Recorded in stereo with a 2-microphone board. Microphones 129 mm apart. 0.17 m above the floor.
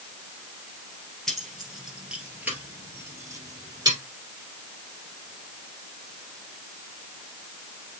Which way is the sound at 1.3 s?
5° left (ahead or behind).